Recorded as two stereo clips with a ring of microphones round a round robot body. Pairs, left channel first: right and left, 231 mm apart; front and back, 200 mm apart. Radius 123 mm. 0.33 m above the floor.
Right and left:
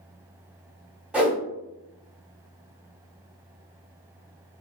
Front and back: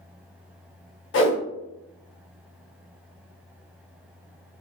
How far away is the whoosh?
About 1.2 m.